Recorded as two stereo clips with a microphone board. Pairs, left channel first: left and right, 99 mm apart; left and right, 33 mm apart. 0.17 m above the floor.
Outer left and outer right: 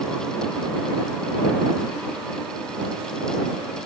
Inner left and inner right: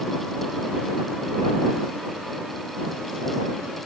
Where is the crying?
No crying in this recording.